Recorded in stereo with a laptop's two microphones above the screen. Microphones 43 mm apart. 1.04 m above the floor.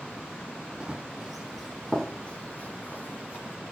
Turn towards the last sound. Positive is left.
turn(degrees=60)  # may be behind; listen again after turning